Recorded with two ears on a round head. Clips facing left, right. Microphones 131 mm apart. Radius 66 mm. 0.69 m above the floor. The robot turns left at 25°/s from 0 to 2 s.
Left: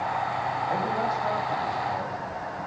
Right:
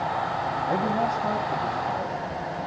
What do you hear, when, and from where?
0.7 s a man speaking: 140° right, 3.5 m; by 2.2 s 175° right, 3.5 m